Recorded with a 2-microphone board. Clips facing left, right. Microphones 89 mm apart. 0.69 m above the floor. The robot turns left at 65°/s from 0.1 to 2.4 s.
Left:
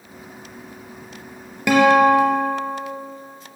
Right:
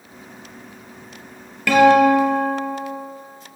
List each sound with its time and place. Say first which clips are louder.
1.7 s a guitar: right 1 dB; 20° left, 2.5 m; by 2.8 s 25° right, 2.5 m